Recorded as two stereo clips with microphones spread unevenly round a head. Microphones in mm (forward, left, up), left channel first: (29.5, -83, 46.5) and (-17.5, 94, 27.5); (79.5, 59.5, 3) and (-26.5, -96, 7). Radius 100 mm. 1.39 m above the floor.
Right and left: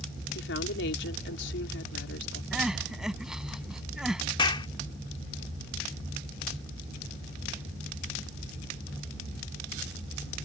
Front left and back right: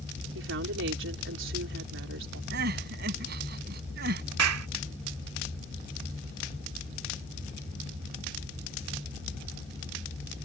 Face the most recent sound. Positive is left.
turn(degrees=-140)